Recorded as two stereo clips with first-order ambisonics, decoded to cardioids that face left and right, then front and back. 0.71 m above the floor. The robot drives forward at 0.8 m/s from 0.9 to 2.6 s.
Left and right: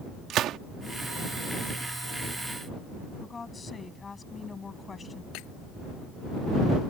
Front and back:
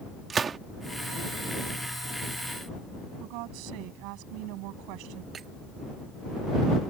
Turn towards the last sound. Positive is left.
turn(degrees=115)